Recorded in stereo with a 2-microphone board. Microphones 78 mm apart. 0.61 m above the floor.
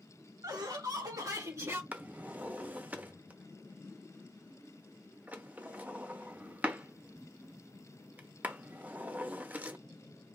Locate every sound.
0.4 s laughter: 65° right (ahead or behind), 2.5 m; by 1.8 s 30° right (ahead or behind), 1.3 m
1.9 s a drawer: 20° right (ahead or behind), 0.6 m